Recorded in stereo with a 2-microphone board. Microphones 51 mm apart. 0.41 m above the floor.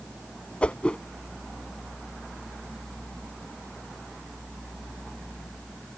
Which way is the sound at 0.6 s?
25° left (ahead or behind).